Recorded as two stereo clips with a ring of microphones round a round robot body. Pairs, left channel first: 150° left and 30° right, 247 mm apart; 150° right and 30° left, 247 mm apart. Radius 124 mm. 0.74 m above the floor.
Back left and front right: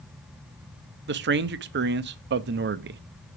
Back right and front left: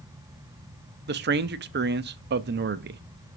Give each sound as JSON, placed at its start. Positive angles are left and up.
{"t": 1.1, "sound": "a man speaking", "azimuth_deg": 0, "distance_m": 0.6}